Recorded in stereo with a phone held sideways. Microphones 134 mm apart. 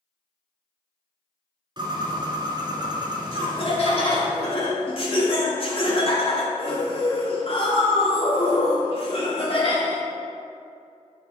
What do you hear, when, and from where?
1.8 s a bird: 35° right (ahead or behind), 1.8 m
3.3 s laughter: 45° left (ahead or behind), 2.5 m